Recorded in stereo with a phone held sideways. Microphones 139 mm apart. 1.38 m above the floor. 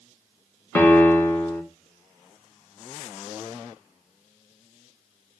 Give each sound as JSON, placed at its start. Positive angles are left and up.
{"t": 0.8, "sound": "a piano", "side_deg": 15, "distance_m": 1.8}